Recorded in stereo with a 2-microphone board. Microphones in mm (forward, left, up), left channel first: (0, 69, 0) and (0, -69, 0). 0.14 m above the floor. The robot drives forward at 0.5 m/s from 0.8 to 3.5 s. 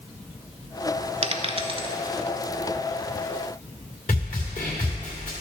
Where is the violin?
I don't hear a violin.